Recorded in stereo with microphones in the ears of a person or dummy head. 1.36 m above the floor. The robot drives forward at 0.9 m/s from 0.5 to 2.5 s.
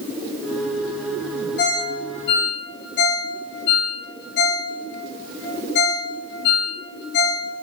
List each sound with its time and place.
1.6 s a ringtone: 55° left (ahead or behind), 3.5 m; by 7.5 s 65° left (ahead or behind), 3 m